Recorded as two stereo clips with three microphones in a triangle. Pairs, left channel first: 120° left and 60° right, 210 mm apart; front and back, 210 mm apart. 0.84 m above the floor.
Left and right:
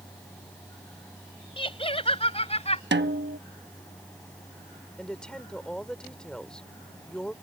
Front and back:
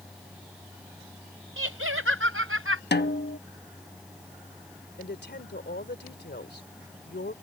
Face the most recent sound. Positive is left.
turn(degrees=35)